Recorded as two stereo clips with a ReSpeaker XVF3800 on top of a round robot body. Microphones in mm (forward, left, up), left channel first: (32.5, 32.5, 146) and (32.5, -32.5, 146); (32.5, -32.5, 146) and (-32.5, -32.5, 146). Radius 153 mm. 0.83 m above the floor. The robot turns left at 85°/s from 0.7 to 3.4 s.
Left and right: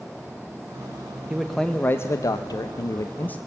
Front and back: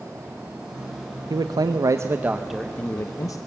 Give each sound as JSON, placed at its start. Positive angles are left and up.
{"t": 1.3, "sound": "a man speaking", "azimuth_deg": -165, "distance_m": 0.6}